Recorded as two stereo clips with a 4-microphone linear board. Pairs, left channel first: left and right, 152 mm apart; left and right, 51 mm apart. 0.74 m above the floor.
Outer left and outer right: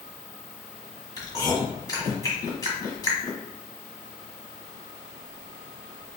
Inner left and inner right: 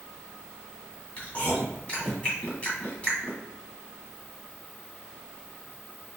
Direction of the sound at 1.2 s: 25° left (ahead or behind).